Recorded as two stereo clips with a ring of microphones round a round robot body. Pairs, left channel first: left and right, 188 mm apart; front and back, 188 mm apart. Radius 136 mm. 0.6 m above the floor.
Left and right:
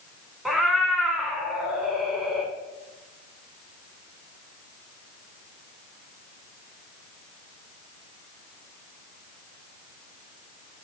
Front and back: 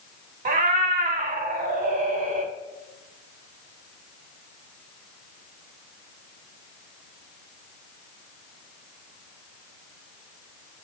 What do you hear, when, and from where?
0.5 s a cat meowing: straight behind, 0.5 m